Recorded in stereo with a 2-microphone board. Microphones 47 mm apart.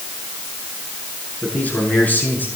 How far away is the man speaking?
About 8.5 m.